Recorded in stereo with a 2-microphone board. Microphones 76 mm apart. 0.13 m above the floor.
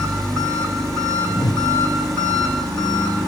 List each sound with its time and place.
0.0 s an engine running: 10° left (ahead or behind), 8 m
1.3 s a whoosh: 65° left (ahead or behind), 1.3 m